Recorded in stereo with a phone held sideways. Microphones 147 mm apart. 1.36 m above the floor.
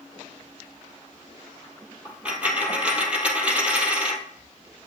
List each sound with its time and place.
2.0 s a dropped coin: 10° right (ahead or behind), 1.4 m